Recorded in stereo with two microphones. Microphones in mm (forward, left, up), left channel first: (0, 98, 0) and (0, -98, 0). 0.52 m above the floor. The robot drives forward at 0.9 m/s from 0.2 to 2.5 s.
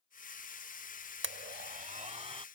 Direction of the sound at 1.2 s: 75° right (ahead or behind).